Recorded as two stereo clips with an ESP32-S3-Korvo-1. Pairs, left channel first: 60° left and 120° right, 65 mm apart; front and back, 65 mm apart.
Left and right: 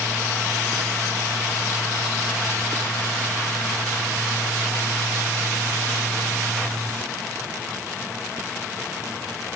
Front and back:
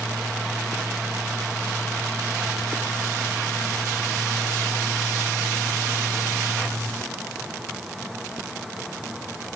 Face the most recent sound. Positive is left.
No sound to turn to.